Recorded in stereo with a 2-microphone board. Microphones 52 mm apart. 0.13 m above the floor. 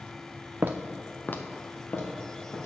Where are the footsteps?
45° right (ahead or behind), 0.6 m; by 2.7 s 60° left (ahead or behind), 3 m.